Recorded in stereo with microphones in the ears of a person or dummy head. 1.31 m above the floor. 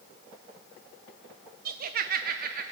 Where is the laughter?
55° right (ahead or behind), 0.7 m.